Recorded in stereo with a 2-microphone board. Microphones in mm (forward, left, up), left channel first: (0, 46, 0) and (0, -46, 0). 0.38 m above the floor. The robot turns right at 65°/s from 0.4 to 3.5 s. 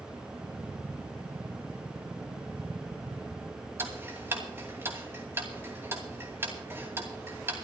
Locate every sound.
3.8 s ticking: 25° right (ahead or behind), 2.5 m